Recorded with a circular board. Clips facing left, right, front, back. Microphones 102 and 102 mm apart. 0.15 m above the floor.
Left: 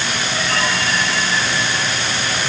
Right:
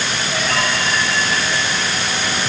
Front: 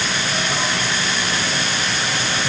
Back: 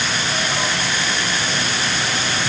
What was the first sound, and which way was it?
Only background noise.